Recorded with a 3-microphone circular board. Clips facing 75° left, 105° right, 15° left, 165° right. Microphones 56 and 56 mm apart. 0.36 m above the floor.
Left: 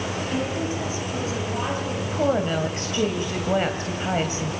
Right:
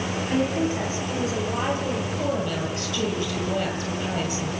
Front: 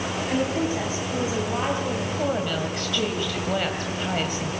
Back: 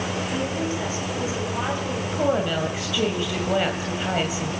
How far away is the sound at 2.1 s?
About 2 m.